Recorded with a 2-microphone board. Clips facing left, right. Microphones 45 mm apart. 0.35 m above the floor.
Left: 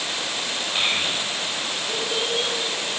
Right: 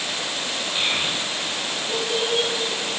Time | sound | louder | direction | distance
0.8 | a child speaking | left 1 dB | 20° left (ahead or behind) | 1.3 m